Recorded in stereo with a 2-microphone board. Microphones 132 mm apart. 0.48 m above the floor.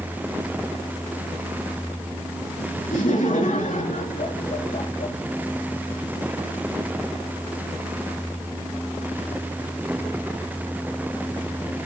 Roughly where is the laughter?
Left.